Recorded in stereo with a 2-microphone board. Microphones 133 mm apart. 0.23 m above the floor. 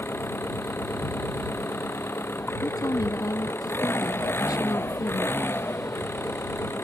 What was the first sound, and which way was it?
An engine running, 20° left (ahead or behind).